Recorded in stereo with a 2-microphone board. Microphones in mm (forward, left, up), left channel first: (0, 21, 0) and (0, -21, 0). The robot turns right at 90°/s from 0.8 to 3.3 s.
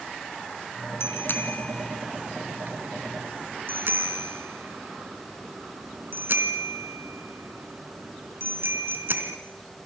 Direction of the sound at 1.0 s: 80° left.